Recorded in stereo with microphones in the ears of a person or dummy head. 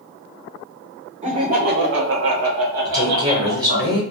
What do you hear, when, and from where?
1.2 s laughter: 45° right (ahead or behind), 0.8 m; by 3.9 s 30° right (ahead or behind), 1.1 m
2.9 s a woman speaking: 30° right (ahead or behind), 0.9 m